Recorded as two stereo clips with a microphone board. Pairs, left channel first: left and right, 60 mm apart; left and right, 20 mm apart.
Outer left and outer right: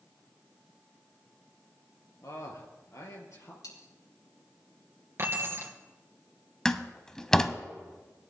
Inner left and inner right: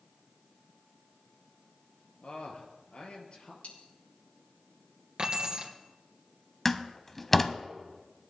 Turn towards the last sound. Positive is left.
turn(degrees=10)  # may be behind; listen again after turning